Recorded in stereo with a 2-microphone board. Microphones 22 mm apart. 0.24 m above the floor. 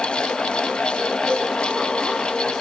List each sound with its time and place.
1.3 s a cowbell: 30° left (ahead or behind), 2.5 m